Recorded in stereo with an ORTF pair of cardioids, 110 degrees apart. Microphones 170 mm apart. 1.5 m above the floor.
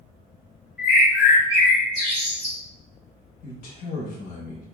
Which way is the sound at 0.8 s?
Straight ahead.